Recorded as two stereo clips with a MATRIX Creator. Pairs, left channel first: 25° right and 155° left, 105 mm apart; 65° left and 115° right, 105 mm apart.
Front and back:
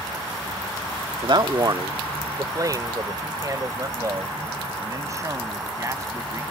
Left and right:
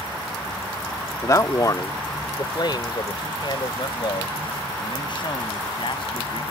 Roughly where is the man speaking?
Behind left.